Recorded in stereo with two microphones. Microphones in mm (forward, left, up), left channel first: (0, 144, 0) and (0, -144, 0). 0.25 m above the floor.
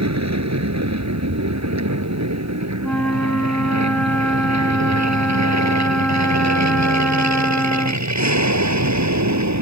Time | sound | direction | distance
0.0 | an aircraft | 65° right (ahead or behind) | ?
2.8 | a flute | 5° left (ahead or behind) | ?